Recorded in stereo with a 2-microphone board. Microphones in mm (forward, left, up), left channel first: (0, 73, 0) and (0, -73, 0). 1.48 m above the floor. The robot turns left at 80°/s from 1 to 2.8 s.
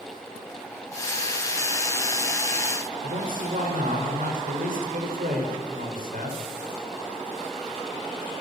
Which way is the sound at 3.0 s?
85° right.